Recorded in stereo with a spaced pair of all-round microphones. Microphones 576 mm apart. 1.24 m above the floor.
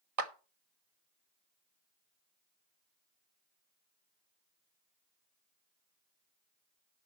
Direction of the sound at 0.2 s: 80° right.